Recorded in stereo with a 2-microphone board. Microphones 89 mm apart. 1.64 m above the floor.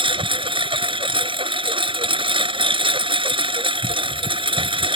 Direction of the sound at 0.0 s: 75° right (ahead or behind).